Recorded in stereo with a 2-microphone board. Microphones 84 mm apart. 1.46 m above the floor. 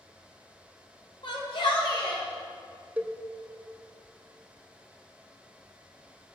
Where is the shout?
70° left (ahead or behind), 3 m; by 2.2 s 80° left, 4 m.